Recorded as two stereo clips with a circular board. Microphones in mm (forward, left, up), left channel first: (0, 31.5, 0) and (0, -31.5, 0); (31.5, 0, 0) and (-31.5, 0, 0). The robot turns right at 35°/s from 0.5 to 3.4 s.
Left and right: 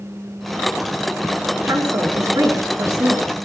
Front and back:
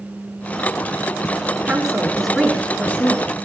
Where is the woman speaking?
110° right, 5 m; by 3.2 s 50° right, 5 m.